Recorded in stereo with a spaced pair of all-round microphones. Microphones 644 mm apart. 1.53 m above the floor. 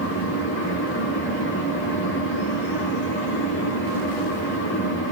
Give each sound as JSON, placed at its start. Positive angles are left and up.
{"t": 0.0, "sound": "a fan", "side_deg": 15, "distance_m": 2.5}